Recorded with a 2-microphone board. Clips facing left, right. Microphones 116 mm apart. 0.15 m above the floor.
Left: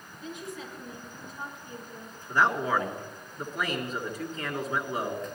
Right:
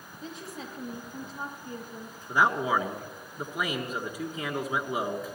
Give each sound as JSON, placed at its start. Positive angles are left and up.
{"t": 0.2, "sound": "a woman speaking", "side_deg": -35, "distance_m": 5.5}
{"t": 2.3, "sound": "a man speaking", "side_deg": -10, "distance_m": 2.0}